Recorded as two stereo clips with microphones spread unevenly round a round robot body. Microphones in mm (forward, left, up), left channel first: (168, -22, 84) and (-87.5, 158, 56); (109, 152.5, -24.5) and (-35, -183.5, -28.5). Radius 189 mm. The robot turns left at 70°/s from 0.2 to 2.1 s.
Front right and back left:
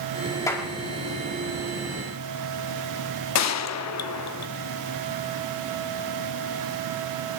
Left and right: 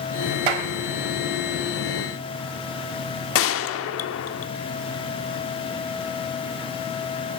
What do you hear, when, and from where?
0.5 s a clap: 120° right, 1.4 m; by 0.7 s 135° right, 1.4 m
3.4 s a gunshot: 10° left, 0.9 m